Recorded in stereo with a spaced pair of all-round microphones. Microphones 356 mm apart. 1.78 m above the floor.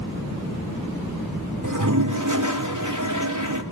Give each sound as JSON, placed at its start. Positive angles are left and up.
{"t": 1.6, "sound": "a toilet flushing", "side_deg": -55, "distance_m": 3.0}